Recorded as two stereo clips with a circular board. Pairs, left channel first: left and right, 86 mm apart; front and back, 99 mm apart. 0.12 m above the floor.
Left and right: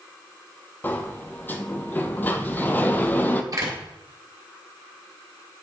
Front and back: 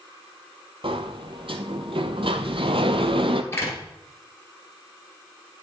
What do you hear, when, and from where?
0.8 s a sliding door: 155° left, 0.5 m
3.5 s a door slam: 55° right, 1.7 m